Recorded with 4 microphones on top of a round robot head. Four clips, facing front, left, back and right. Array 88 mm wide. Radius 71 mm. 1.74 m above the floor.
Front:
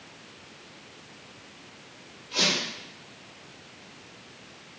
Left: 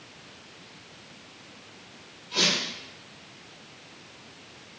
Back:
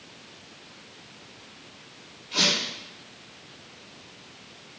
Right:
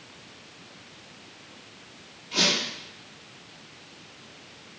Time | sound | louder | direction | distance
2.3 | a squeak | right 1 dB, back 1 dB | 135° right | 3.5 m